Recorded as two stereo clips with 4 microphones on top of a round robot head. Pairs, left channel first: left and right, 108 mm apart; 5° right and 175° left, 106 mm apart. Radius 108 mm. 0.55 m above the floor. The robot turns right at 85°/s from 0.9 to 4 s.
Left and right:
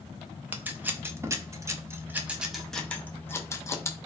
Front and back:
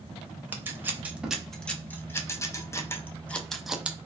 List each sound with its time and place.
0.5 s scissors: 145° right, 0.6 m; by 4.1 s 120° left, 0.6 m